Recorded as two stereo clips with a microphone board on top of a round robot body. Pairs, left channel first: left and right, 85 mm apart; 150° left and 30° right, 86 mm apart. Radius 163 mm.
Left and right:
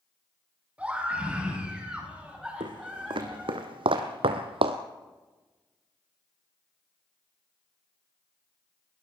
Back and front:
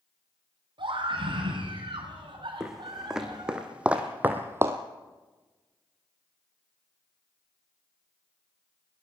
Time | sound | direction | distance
0.8 | a scream | 10° right | 6 m
2.6 | footsteps | 115° right | 2 m